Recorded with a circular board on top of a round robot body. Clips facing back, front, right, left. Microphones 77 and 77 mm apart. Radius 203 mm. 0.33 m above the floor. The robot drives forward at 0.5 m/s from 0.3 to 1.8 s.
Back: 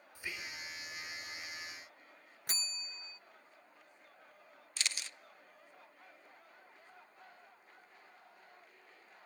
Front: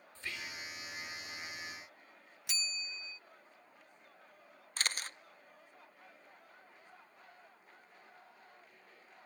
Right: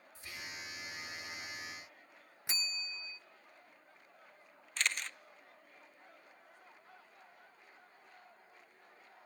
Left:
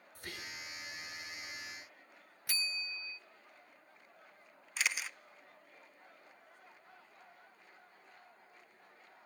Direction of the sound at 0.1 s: 105° left.